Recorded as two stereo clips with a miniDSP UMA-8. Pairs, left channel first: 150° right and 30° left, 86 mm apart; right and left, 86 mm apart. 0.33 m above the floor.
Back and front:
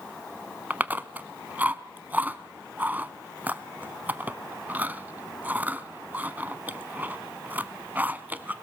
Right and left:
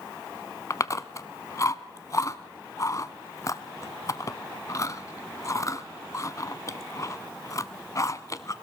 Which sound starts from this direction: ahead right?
Chewing, at 0.7 s.